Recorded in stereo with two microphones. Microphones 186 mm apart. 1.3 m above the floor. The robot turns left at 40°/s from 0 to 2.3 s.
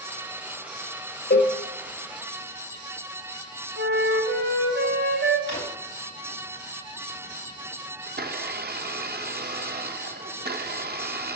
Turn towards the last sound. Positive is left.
turn(degrees=-60)  # may be behind; listen again after turning